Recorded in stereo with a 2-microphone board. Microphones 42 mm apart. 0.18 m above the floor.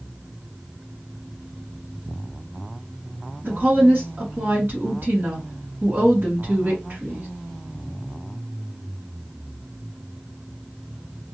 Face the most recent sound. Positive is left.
turn(degrees=-45)  # may be behind; listen again after turning